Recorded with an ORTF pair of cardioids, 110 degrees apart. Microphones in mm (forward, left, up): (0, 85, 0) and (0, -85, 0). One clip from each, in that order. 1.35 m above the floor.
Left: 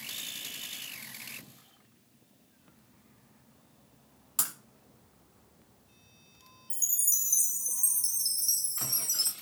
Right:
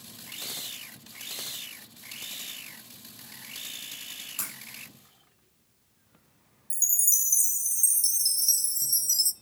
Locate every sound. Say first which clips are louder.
4.4 s breaking glass: left 6 dB; 30° left, 5.5 m
6.7 s a chime: right 4 dB; 20° right, 0.7 m